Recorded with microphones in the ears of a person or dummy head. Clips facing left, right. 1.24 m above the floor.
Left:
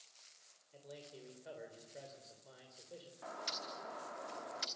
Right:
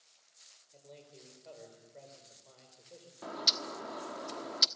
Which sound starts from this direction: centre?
A man speaking, at 0.7 s.